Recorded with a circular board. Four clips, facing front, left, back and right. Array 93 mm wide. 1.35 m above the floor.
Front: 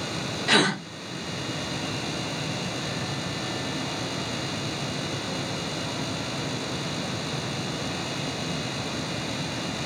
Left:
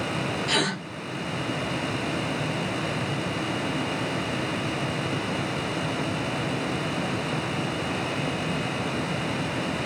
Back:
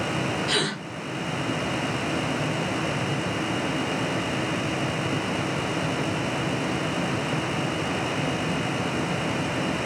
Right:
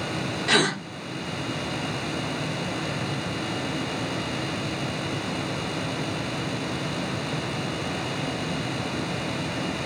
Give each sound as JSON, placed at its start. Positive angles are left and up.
{"t": 0.5, "sound": "a gasp", "azimuth_deg": -40, "distance_m": 0.7}